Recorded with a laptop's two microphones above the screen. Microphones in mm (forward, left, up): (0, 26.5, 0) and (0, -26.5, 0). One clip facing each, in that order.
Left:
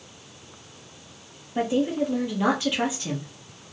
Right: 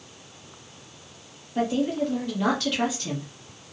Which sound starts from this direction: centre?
A woman speaking, at 1.6 s.